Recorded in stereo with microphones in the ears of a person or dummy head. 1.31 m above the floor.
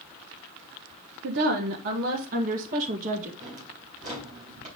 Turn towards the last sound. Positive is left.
turn(degrees=-45)  # may be behind; listen again after turning